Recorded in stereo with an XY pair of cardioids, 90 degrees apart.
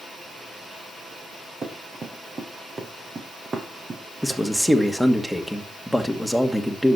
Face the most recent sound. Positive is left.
turn(degrees=0)